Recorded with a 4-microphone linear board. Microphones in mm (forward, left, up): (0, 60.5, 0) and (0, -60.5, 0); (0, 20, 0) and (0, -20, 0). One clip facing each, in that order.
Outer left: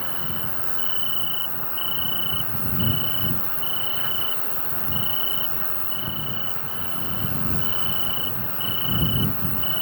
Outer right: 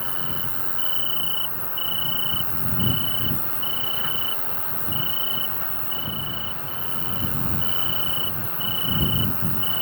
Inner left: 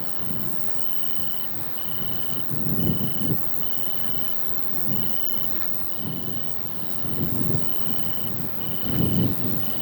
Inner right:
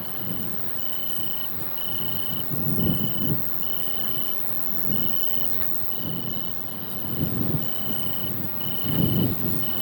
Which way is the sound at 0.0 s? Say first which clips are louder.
Even, even; 25° right (ahead or behind).